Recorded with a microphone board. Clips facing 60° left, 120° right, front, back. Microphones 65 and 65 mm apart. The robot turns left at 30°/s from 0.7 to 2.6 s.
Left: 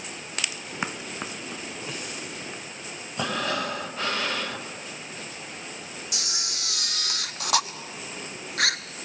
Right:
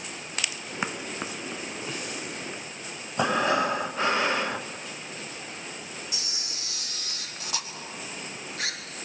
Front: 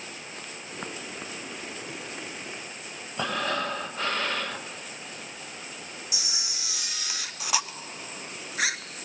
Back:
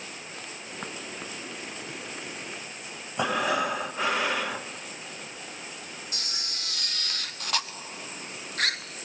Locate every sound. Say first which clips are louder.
3.2 s breathing: right 5 dB, back 3 dB; 120° right, 0.7 m
6.1 s a camera shutter: left 4 dB, even; 80° left, 0.8 m